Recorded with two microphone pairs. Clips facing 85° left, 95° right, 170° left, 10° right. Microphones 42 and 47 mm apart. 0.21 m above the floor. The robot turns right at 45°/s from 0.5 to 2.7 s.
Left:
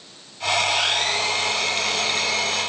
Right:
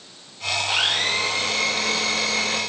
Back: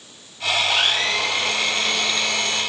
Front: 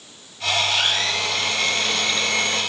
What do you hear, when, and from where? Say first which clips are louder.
0.7 s a blender: even, back 2 dB; 155° right, 5.5 m; by 2.6 s 70° right, 5.5 m